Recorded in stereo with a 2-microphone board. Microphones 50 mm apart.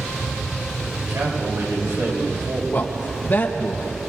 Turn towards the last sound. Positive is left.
turn(degrees=40)  # may be behind; listen again after turning